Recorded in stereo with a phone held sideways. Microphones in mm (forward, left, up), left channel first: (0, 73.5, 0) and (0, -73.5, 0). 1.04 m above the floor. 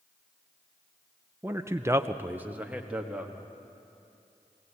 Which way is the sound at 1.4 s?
15° right (ahead or behind).